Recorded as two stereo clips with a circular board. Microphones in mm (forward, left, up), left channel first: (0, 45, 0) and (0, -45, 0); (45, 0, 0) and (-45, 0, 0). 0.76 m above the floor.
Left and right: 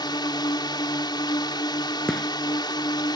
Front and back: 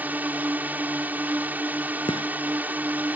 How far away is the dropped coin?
No dropped coin in this recording.